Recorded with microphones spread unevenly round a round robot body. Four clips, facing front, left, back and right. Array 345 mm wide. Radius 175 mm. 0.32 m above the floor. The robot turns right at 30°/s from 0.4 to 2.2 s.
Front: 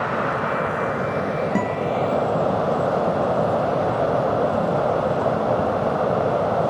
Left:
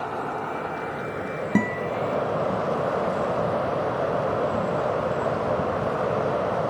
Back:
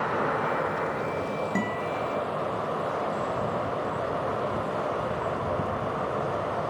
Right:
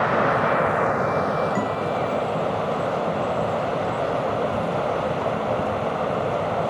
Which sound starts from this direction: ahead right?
Running water, at 0.0 s.